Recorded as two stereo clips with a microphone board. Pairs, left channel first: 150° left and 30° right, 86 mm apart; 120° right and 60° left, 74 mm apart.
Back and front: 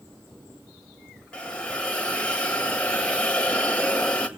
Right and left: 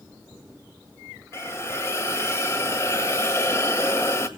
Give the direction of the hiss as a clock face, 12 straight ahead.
5 o'clock.